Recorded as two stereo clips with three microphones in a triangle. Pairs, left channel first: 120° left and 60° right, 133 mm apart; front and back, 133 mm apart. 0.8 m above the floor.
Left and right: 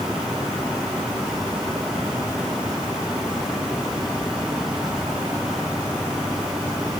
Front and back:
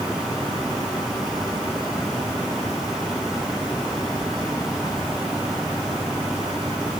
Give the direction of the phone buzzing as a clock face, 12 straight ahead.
No phone buzzing in this recording.